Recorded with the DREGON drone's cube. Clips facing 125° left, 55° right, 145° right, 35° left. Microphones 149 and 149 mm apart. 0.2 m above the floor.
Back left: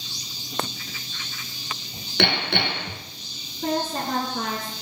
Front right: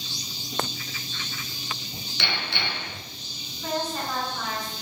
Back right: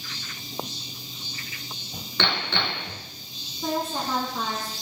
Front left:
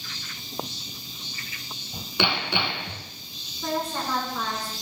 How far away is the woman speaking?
About 3 m.